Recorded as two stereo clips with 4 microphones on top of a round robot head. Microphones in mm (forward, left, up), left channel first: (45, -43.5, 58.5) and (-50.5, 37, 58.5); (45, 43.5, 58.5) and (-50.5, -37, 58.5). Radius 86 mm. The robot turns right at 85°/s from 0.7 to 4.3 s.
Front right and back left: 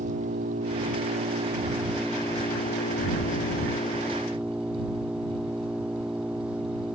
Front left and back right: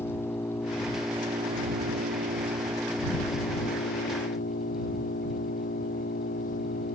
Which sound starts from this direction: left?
An engine running, at 0.0 s.